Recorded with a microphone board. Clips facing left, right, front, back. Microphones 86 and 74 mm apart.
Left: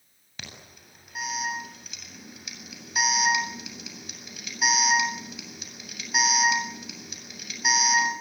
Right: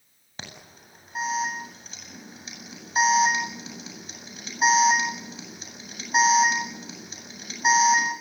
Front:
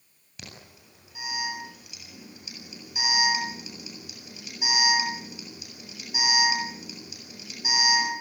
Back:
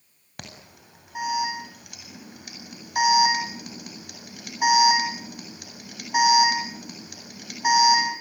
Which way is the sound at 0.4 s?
150° right.